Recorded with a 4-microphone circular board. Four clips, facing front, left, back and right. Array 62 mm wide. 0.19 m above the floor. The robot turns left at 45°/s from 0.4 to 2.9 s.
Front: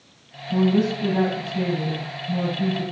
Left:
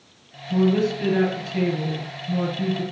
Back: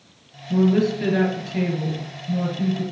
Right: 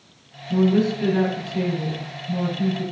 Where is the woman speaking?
160° right, 3.5 m; by 2.8 s 95° left, 3.5 m.